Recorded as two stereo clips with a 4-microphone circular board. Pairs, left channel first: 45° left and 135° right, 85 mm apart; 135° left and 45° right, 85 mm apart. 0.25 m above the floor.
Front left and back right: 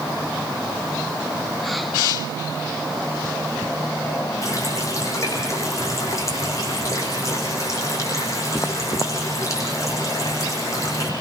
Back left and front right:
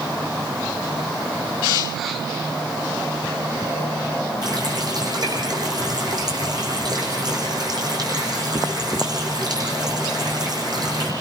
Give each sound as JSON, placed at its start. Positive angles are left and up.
{"t": 4.4, "sound": "a running tap", "azimuth_deg": -10, "distance_m": 9.5}